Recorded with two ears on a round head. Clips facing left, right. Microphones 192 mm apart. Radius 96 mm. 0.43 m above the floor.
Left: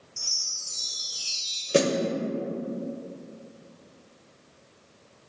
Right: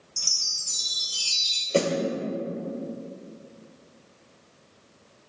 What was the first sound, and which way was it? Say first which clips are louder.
A chime: right 1 dB; 50° right (ahead or behind).